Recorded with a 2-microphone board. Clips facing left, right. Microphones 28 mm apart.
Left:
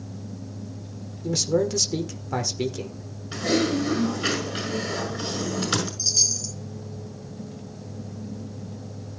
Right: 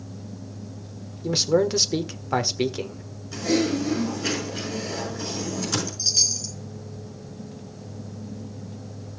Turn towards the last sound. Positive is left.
turn(degrees=-20)  # may be behind; listen again after turning